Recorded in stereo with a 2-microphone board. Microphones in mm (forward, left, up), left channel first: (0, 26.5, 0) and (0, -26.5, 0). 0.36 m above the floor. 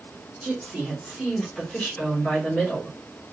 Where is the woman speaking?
20° right (ahead or behind), 1.3 m; by 3.0 s 35° left (ahead or behind), 1.6 m.